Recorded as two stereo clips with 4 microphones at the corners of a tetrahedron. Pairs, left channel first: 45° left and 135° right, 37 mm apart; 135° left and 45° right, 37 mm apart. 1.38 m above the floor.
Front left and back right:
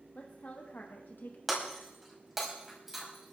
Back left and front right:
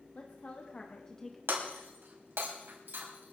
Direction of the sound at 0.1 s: 90° left.